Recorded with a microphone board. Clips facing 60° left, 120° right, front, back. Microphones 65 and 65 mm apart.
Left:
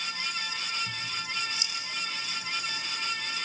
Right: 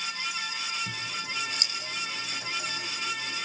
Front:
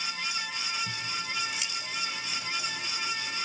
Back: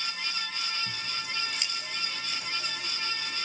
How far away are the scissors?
About 4.5 m.